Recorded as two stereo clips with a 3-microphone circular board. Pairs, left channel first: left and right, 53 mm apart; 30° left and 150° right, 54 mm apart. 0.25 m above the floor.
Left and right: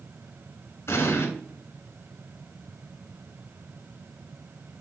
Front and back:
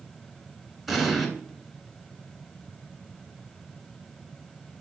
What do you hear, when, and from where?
0.9 s an explosion: 120° left, 0.8 m